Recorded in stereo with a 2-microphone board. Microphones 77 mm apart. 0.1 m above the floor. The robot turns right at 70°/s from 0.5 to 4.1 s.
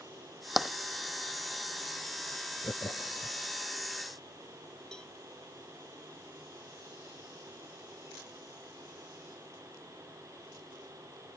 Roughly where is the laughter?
Left.